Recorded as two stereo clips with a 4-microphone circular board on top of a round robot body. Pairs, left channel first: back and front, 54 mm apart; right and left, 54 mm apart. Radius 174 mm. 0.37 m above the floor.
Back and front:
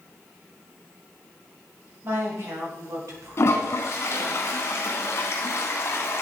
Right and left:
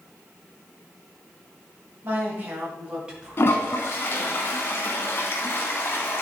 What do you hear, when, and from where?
2.0 s a woman speaking: 40° left, 3 m; by 4.4 s straight ahead, 3.5 m
3.4 s a toilet flushing: 135° right, 0.8 m